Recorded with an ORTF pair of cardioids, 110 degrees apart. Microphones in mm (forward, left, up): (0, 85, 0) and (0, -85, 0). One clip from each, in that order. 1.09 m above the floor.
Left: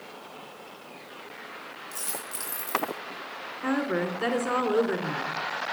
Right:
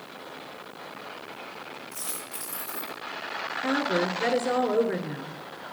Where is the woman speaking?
20° left, 3.5 m.